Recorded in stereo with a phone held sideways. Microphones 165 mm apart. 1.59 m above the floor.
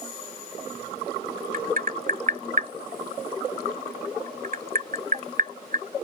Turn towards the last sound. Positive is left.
turn(degrees=-55)  # may be behind; listen again after turning